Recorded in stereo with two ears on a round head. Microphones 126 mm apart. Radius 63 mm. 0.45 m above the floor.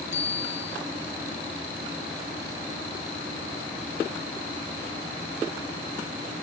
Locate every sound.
0.1 s a bicycle bell: 50° left (ahead or behind), 4.5 m